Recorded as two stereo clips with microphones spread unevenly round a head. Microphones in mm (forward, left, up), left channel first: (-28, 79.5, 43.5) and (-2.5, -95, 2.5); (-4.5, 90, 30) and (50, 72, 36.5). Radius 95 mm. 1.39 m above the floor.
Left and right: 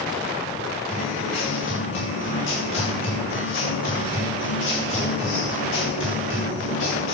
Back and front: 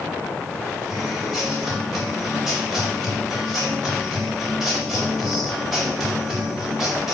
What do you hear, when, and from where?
0.9 s a guitar: 70° left, 8 m